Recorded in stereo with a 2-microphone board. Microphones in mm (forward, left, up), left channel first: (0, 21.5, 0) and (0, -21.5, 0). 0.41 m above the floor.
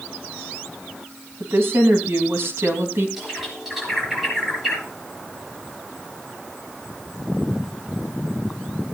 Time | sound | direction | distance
1.4 | a woman speaking | 70° right (ahead or behind) | 3 m
3.2 | a bird | 5° right (ahead or behind) | 5.5 m